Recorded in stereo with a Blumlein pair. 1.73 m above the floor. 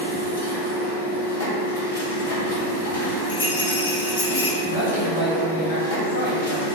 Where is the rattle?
65° left, 0.7 m.